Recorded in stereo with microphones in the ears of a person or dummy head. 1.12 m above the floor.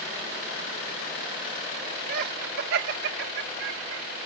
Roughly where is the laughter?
Right.